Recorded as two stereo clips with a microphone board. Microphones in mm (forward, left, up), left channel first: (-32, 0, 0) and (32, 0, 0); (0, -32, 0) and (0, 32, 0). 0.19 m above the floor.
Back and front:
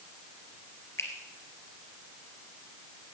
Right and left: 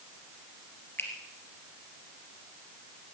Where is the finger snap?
140° right, 3 m.